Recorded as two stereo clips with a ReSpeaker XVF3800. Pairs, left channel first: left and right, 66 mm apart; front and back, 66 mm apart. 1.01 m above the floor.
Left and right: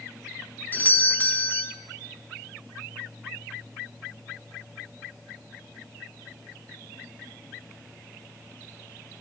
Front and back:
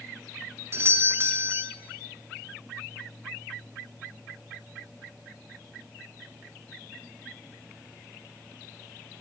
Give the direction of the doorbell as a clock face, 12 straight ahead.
7 o'clock.